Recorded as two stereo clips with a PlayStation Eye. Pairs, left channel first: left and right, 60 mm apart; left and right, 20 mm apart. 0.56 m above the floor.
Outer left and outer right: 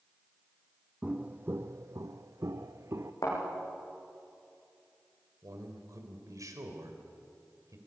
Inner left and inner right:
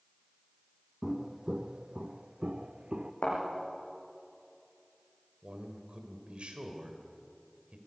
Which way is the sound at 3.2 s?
65° left (ahead or behind).